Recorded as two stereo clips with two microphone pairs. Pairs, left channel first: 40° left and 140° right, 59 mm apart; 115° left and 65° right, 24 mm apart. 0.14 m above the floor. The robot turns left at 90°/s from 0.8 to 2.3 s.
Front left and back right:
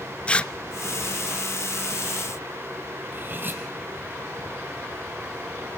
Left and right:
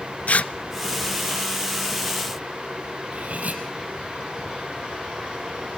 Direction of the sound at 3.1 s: 85° right.